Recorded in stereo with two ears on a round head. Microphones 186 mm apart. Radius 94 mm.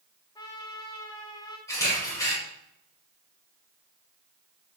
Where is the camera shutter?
15° left (ahead or behind), 6.5 m.